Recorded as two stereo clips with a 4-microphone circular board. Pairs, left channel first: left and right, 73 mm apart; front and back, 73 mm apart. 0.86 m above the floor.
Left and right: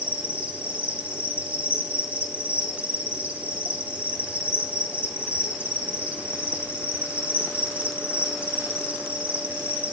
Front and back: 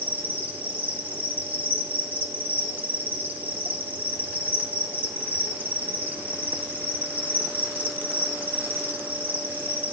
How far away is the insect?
About 1.8 m.